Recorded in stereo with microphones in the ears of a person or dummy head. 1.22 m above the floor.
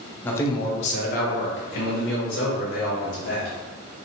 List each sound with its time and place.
0.2 s a man speaking: 10° left (ahead or behind), 0.6 m; by 3.5 s 70° left (ahead or behind), 1.8 m